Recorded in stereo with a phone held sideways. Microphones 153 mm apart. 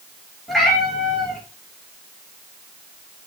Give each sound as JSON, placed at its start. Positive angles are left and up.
{"t": 0.5, "sound": "a cat meowing", "side_deg": 0, "distance_m": 3.0}